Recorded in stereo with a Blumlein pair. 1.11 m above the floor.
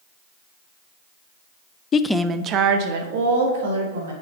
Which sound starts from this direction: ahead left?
A woman speaking, at 1.9 s.